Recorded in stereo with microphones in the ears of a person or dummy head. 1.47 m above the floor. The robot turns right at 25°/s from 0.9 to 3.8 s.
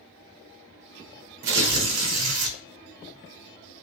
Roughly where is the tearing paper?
Right.